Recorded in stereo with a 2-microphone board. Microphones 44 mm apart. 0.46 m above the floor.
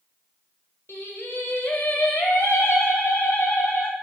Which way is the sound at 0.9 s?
80° left.